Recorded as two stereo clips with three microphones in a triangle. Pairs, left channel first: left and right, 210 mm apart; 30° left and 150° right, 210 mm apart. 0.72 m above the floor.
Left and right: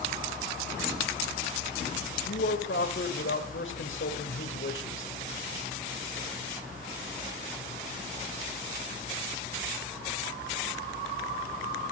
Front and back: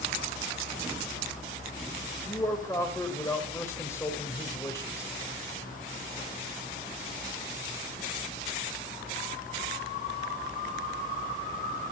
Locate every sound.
2.2 s a man speaking: 105° left, 3.5 m